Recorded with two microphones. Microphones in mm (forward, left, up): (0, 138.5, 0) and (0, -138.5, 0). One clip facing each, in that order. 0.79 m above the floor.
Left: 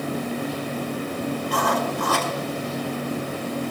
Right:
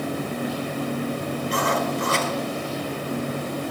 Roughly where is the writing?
Right.